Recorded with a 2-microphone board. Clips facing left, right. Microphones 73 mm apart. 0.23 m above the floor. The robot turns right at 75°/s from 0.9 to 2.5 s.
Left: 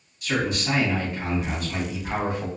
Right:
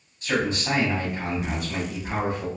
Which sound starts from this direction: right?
A man speaking, at 0.2 s.